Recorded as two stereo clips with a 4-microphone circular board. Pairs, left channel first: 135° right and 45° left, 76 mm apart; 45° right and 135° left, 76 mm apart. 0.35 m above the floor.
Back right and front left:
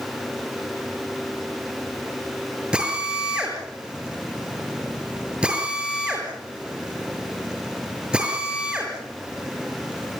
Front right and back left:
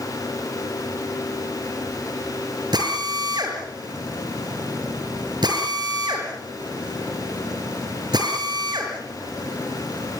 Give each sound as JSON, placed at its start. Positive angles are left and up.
{"t": 2.7, "sound": "a drill", "azimuth_deg": 120, "distance_m": 6.0}